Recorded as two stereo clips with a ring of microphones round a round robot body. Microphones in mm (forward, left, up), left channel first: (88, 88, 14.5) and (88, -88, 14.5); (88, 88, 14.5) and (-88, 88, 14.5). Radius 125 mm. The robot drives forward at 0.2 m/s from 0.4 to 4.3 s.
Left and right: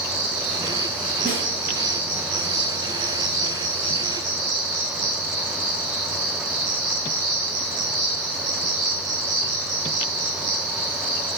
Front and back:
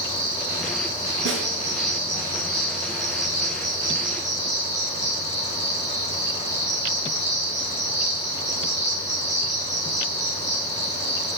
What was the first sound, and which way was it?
An insect, 115° right.